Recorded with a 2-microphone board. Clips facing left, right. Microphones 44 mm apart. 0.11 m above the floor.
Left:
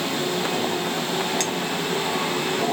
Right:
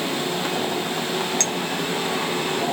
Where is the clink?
Centre (ahead or behind), 0.9 m.